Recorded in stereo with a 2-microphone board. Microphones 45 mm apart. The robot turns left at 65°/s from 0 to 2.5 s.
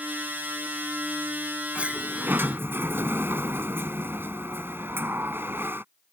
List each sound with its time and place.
1.8 s a sliding door: 25° right; by 5.8 s 75° right